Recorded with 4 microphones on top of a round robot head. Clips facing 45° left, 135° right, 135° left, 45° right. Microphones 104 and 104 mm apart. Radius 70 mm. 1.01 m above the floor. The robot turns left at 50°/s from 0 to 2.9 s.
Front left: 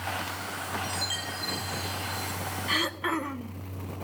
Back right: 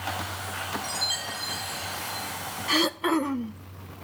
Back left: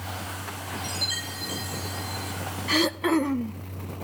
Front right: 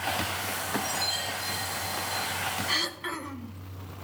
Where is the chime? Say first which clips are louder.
Even, front right 3 dB; 175° left, 6.5 m; by 2.3 s 100° left, 6.5 m.